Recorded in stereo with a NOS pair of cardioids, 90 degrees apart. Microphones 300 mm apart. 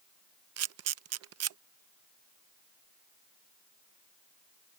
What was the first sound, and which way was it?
A camera shutter, 55° right.